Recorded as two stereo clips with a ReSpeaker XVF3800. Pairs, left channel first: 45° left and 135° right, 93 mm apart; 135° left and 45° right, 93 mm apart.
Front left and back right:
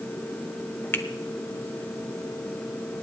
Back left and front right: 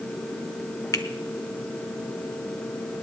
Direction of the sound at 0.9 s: 100° left.